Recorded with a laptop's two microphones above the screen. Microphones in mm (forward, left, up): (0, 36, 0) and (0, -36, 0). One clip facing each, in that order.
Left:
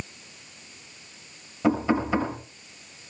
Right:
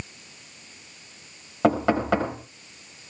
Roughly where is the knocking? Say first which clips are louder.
Right 2 dB; right.